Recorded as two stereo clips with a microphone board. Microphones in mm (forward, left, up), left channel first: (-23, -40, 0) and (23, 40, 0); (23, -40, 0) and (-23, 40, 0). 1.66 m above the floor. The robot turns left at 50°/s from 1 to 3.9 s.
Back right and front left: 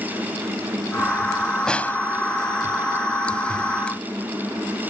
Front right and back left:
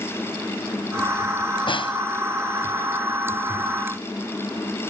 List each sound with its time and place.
1.7 s a snare drum: 35° right; by 2.0 s 55° right